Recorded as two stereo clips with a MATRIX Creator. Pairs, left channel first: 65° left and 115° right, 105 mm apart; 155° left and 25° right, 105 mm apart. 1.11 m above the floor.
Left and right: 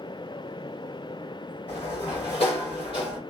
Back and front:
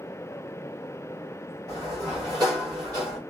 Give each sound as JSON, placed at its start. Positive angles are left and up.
{"t": 1.7, "sound": "a sliding door", "azimuth_deg": 35, "distance_m": 1.9}